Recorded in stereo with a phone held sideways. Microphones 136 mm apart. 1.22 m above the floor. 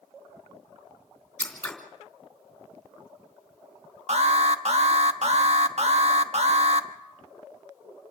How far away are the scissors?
About 3.5 m.